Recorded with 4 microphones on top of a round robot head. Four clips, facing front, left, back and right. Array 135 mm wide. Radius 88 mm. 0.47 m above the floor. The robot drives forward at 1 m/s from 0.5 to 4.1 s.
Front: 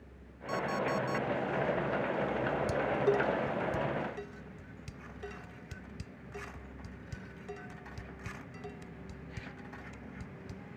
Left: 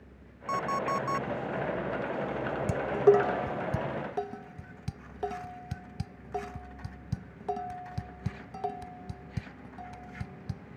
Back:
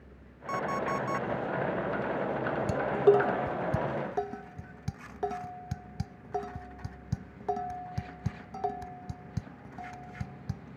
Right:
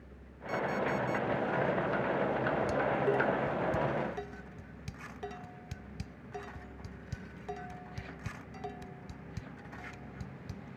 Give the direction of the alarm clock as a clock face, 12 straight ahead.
8 o'clock.